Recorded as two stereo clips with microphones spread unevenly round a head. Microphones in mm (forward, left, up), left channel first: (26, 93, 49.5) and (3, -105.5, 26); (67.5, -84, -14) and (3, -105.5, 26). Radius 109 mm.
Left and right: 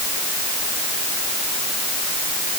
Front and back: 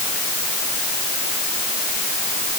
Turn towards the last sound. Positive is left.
No sound to turn to.